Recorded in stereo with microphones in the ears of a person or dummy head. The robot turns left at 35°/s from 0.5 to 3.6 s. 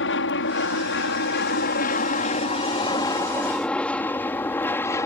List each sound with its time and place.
0.0 s an aircraft: 65° left (ahead or behind); by 5.1 s 10° left (ahead or behind)